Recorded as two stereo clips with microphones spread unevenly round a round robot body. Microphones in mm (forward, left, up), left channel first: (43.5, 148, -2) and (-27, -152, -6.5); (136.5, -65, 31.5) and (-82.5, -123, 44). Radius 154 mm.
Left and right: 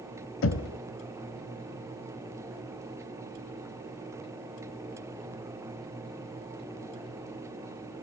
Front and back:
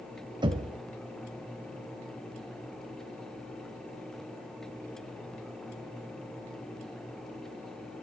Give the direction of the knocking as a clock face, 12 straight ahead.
8 o'clock.